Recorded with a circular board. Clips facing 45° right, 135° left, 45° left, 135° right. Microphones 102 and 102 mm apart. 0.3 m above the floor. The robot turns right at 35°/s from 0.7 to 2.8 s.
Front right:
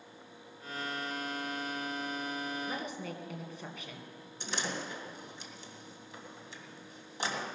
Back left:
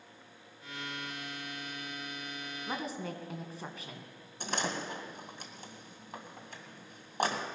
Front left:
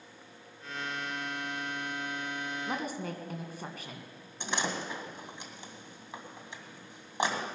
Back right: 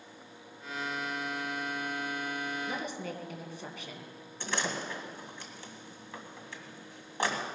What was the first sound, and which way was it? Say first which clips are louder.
A woman speaking: back left 1 dB, front left 1 dB; 80° left.